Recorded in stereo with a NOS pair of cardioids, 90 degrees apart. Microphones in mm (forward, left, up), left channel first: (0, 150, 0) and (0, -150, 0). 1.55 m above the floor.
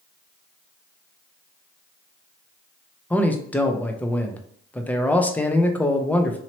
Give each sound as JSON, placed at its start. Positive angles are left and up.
{"t": 3.1, "sound": "a man speaking", "azimuth_deg": 5, "distance_m": 0.6}